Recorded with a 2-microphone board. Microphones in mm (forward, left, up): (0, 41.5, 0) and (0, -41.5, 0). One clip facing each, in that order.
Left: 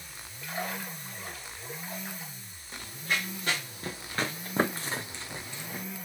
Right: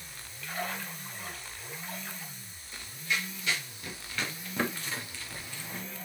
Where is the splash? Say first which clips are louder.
Left 1 dB; 20° left (ahead or behind), 4 m.